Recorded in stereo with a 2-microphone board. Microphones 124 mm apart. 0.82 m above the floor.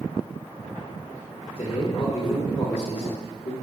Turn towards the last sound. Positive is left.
turn(degrees=50)  # may be behind; listen again after turning